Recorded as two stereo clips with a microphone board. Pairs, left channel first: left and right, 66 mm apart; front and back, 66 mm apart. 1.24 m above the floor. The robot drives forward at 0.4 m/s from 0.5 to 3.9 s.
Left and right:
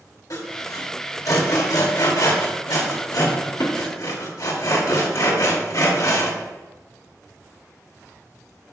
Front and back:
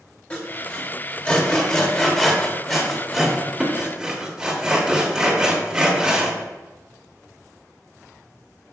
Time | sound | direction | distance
0.3 | sawing | 60° left | 2 m